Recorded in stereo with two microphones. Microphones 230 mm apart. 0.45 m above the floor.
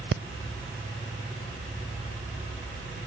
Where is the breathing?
55° right (ahead or behind), 0.7 m.